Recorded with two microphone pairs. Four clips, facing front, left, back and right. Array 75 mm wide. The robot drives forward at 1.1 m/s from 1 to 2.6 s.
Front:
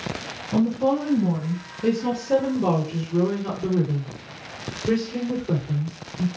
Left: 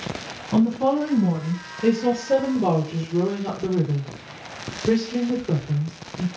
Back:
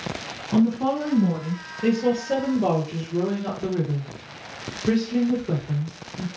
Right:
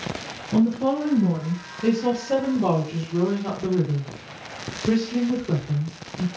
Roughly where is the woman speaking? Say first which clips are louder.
Left 1 dB, even; behind left.